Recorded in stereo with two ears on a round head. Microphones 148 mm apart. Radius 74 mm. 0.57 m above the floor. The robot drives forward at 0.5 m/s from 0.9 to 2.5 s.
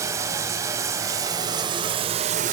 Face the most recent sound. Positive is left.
turn(degrees=-50)  # may be behind; listen again after turning